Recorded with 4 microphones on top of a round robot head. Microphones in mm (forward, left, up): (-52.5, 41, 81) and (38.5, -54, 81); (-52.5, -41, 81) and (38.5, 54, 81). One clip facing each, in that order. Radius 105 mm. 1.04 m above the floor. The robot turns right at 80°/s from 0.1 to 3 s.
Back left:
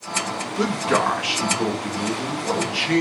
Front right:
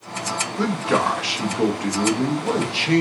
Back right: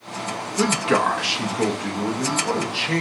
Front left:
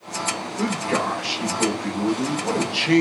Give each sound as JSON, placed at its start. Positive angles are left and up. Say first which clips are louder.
{"t": 0.6, "sound": "a man speaking", "louder": "even, back right 4 dB", "azimuth_deg": -160, "distance_m": 0.9}